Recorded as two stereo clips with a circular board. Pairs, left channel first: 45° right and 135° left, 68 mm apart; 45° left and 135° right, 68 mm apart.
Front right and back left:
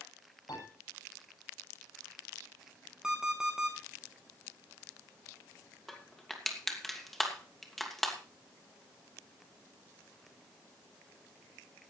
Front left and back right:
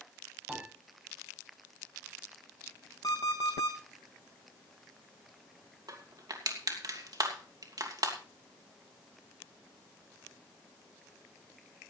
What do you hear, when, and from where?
0.5 s a piano: 55° right, 10 m
3.0 s an alarm clock: 55° left, 4 m
5.9 s crushing: 130° right, 2.5 m